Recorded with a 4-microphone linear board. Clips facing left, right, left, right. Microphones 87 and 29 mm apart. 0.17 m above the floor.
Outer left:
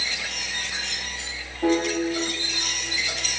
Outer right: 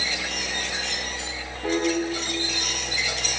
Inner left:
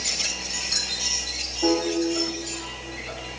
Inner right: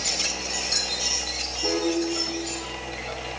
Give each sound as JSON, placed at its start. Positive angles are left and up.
{"t": 1.6, "sound": "a piano", "side_deg": 70, "distance_m": 4.5}